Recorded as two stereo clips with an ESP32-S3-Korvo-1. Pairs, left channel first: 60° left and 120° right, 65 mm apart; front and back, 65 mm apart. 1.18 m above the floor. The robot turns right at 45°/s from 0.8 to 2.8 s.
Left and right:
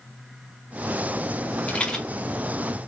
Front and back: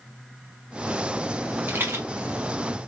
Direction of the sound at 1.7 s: 125° left.